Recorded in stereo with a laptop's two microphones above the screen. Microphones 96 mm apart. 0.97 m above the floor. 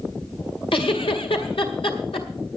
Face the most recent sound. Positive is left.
turn(degrees=80)